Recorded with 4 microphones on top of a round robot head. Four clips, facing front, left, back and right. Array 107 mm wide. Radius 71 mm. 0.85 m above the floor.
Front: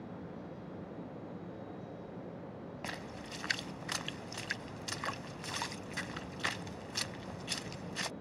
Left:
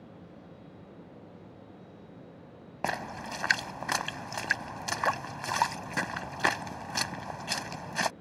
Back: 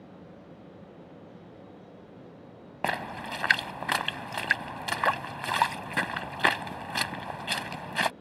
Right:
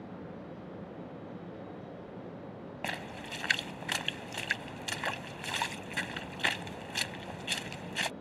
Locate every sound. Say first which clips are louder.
2.8 s a splash: left 7 dB, back 16 dB; 150° left